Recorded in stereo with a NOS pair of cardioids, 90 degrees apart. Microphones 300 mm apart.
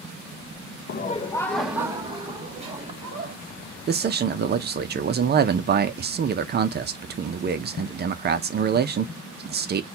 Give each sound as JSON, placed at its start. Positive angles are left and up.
{"t": 0.9, "sound": "laughter", "azimuth_deg": 40, "distance_m": 0.5}
{"t": 3.9, "sound": "a man speaking", "azimuth_deg": -35, "distance_m": 0.5}